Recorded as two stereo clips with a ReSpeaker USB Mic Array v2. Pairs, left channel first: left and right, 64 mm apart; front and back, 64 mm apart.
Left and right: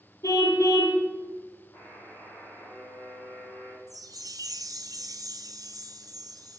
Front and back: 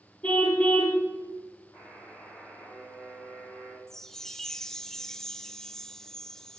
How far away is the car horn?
About 3 m.